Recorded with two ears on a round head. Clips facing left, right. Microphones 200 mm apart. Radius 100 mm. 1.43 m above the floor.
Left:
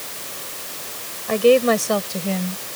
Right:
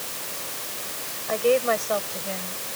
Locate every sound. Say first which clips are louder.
1.3 s a woman speaking: left 7 dB; 55° left (ahead or behind); by 2.6 s 65° left (ahead or behind)